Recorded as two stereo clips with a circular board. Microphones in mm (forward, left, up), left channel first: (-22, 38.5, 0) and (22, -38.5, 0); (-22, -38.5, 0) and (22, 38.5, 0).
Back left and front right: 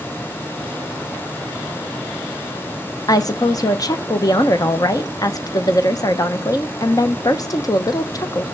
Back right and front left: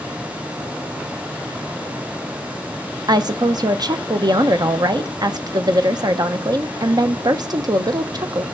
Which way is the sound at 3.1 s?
85° left.